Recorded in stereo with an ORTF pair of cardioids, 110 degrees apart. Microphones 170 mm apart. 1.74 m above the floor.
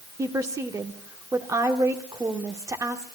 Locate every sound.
0.2 s a woman speaking: 20° right, 1.5 m